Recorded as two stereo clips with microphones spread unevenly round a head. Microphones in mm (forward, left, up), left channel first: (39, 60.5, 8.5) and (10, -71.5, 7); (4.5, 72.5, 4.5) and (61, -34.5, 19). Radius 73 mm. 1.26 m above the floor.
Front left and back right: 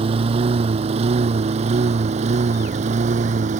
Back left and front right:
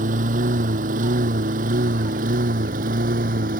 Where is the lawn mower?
55° right; by 3.6 s 70° right.